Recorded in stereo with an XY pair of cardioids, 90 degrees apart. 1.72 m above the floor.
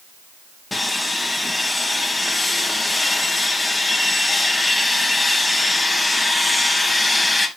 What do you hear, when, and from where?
0.7 s sawing: 20° left, 2.5 m